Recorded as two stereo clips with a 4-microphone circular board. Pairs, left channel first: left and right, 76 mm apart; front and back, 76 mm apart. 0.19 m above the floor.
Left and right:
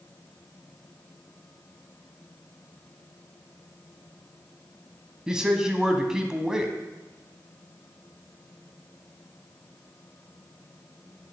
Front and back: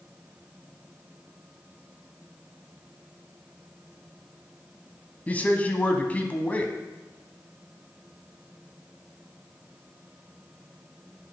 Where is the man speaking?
25° right, 1.1 m.